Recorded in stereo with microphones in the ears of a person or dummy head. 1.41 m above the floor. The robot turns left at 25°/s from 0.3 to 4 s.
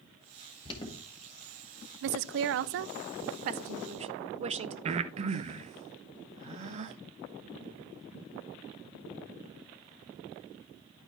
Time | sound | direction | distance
0.7 | an alarm | 30° left (ahead or behind) | 1.8 m
2.0 | a woman speaking | 90° right | 0.5 m
4.8 | breathing | 35° right (ahead or behind) | 0.6 m